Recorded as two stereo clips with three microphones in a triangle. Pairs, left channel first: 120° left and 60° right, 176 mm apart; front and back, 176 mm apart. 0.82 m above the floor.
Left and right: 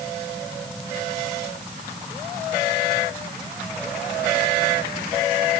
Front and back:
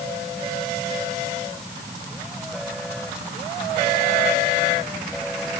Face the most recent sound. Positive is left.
No sound to turn to.